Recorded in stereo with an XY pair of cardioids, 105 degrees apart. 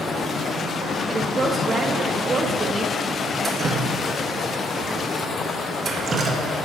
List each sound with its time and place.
1.1 s a woman speaking: 30° right, 1.6 m
3.4 s dripping: 40° right, 1.6 m